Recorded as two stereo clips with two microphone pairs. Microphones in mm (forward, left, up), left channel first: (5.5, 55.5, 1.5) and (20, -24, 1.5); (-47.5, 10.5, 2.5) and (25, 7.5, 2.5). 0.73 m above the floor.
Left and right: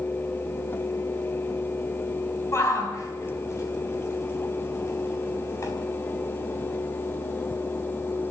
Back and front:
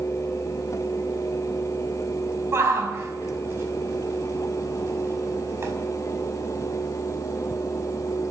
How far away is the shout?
About 5 m.